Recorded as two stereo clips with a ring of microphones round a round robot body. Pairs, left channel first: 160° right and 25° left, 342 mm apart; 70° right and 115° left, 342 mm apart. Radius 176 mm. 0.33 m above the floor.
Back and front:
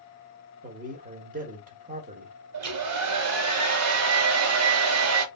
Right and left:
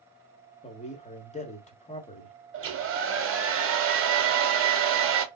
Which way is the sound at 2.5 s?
65° left.